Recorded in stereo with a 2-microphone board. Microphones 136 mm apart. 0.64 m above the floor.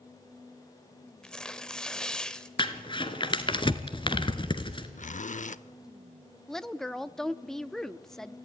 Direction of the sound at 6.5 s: 5° left (ahead or behind).